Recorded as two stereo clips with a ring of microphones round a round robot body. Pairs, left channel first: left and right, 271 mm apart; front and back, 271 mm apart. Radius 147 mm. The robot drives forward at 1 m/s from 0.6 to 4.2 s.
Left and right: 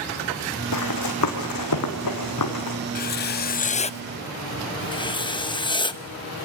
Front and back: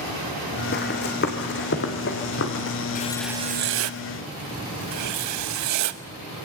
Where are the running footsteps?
60° left, 3 m; by 2.8 s 55° left, 3.5 m.